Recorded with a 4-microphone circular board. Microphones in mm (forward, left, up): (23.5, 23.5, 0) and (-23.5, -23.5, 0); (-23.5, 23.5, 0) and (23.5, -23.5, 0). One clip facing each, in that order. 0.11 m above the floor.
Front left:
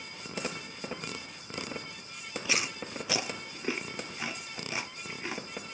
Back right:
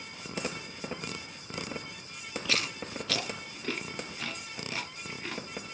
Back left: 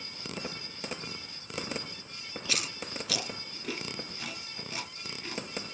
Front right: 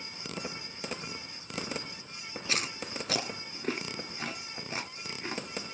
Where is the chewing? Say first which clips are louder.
Even, front right 2 dB; 15° right, 0.6 m.